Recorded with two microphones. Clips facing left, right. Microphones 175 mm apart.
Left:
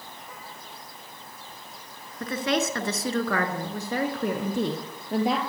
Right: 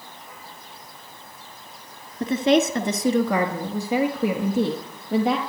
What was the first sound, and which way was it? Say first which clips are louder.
A woman speaking: right 8 dB; 25° right (ahead or behind).